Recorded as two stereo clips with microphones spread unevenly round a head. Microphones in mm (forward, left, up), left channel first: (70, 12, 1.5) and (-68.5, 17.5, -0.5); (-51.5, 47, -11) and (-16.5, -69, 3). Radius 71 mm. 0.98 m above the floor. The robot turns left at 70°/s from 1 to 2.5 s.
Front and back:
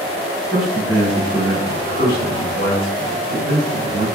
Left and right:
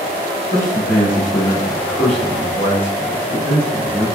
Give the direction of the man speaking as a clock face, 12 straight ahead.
9 o'clock.